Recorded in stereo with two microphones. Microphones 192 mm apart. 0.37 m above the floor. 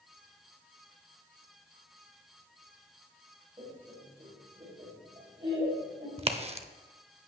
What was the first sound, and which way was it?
Laughter, 30° right (ahead or behind).